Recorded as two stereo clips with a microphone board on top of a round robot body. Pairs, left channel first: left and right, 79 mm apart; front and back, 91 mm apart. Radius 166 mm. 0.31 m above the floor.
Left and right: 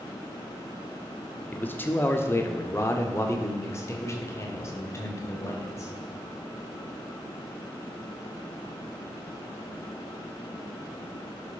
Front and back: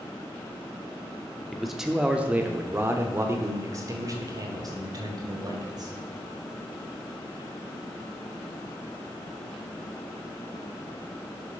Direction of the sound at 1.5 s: 85° left.